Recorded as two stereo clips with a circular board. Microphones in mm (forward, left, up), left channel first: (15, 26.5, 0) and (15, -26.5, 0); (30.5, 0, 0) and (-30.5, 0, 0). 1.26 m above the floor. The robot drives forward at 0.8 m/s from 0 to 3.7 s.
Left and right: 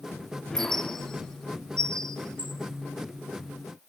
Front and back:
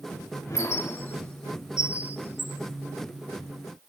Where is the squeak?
15° left, 1.1 m; by 3.9 s 175° left, 1.8 m.